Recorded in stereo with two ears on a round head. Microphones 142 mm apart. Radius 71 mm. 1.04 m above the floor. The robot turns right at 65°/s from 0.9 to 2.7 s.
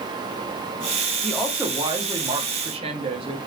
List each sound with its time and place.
1.2 s a woman speaking: 175° left, 0.7 m; by 3.4 s 90° right, 0.7 m